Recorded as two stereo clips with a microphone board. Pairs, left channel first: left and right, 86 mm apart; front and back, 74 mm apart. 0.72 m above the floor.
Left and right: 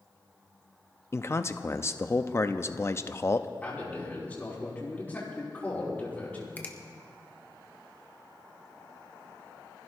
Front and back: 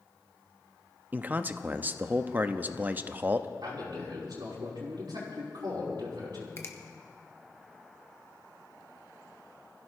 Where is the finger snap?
30° left, 1.2 m.